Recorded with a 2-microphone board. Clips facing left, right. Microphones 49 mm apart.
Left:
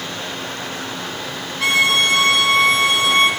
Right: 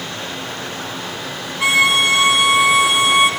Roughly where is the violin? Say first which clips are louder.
Right 2 dB; centre.